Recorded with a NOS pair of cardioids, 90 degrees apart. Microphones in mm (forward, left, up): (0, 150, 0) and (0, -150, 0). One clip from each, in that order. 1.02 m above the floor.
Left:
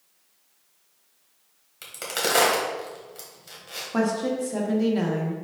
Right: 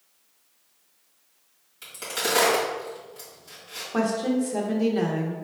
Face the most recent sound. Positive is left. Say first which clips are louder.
# even
turn(degrees=5)